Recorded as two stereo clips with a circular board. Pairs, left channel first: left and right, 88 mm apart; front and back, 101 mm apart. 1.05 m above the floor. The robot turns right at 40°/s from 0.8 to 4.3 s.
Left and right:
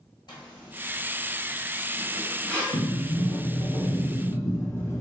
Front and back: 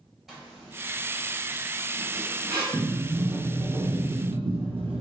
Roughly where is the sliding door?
Left.